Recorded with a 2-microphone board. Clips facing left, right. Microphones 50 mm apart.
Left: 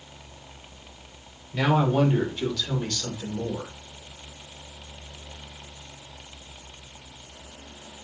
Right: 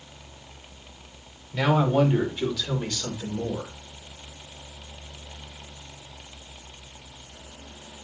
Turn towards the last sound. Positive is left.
turn(degrees=-25)  # may be behind; listen again after turning